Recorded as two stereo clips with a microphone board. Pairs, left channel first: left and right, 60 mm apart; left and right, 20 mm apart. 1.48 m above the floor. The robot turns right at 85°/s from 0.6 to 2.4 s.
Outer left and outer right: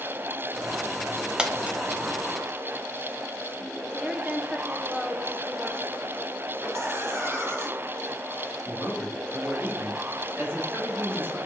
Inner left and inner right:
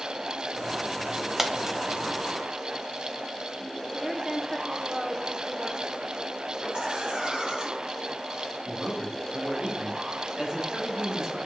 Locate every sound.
1.4 s a dropped coin: 15° right (ahead or behind), 1.0 m; by 1.8 s 25° right (ahead or behind), 1.0 m
3.9 s a woman speaking: 10° right (ahead or behind), 1.1 m
6.6 s laughter: 45° right (ahead or behind), 4 m
8.7 s a man speaking: 35° right (ahead or behind), 3 m